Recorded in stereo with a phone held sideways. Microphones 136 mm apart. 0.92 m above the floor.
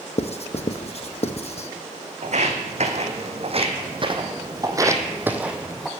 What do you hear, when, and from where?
0.2 s writing: 55° left (ahead or behind), 0.7 m
2.2 s footsteps: 65° right (ahead or behind), 2 m; by 5.9 s centre (ahead or behind), 1.5 m